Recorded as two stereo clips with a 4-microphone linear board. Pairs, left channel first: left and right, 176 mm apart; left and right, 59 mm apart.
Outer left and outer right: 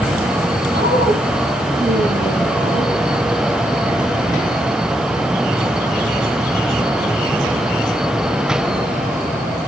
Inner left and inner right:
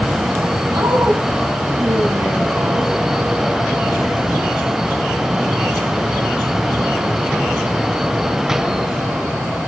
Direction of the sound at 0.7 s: 65° right (ahead or behind).